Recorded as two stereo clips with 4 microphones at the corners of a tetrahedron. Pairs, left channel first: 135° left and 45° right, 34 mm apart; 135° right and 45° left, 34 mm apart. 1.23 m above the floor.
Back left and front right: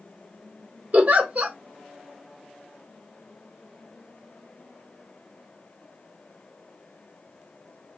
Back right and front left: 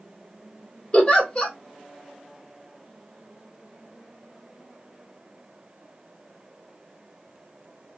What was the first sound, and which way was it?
A giggle, 80° right.